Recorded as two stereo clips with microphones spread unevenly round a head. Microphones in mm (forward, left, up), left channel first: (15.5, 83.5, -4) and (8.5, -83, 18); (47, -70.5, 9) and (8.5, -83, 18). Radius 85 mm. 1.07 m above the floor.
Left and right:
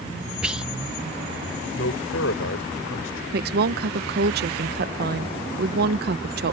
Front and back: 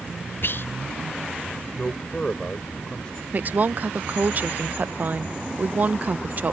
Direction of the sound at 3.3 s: 110° right.